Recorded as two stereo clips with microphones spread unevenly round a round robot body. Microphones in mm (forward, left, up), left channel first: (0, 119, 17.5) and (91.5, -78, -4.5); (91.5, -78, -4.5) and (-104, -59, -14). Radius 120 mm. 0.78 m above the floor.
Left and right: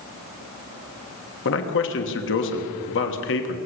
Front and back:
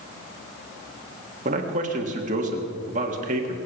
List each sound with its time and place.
1.4 s a man speaking: 130° left, 1.5 m